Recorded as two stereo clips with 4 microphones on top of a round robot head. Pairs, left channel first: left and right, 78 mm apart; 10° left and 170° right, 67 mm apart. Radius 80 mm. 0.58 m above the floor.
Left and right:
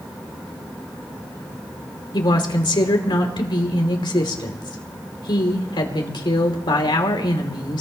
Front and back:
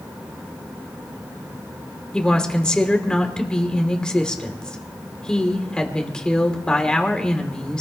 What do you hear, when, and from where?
2.1 s a woman speaking: 85° left, 2.5 m